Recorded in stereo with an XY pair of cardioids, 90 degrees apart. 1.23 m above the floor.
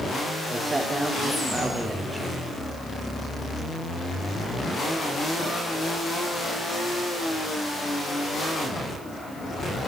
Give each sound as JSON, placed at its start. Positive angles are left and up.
{"t": 0.5, "sound": "a man speaking", "azimuth_deg": -25, "distance_m": 4.0}